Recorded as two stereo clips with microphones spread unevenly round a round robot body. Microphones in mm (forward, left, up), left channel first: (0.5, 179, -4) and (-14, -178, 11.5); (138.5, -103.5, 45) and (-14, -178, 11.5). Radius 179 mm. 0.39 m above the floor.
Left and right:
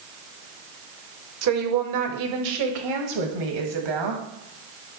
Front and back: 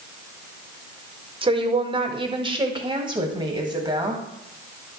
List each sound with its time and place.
1.4 s a woman speaking: 125° right, 1.4 m; by 4.2 s 90° right, 2.5 m